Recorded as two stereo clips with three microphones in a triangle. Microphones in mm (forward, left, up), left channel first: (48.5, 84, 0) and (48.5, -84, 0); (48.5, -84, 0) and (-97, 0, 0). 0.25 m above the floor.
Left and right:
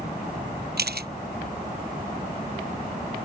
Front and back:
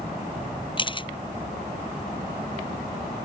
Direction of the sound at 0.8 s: 90° right.